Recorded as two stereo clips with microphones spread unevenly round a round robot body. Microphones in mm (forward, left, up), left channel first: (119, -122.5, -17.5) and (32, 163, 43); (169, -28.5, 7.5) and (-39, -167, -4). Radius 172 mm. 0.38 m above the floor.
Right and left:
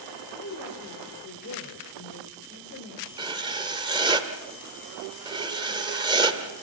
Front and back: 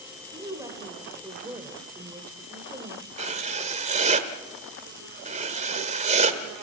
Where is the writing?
170° right, 1.2 m.